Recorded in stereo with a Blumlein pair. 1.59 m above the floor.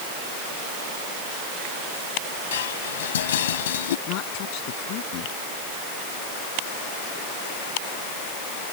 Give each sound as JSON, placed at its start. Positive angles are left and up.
{"t": 2.5, "sound": "dishes clattering", "azimuth_deg": 60}
{"t": 4.1, "sound": "a woman speaking", "azimuth_deg": 40}